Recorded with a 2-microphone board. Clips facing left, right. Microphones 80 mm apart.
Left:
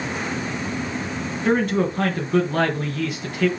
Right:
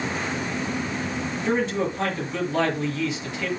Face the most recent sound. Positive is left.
turn(degrees=55)  # may be behind; listen again after turning